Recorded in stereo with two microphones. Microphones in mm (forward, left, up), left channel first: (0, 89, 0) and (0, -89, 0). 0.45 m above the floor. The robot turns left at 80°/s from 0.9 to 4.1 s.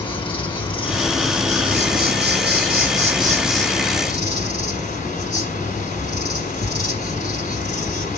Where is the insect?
30° left, 4.5 m; by 8.2 s 135° left, 4.5 m.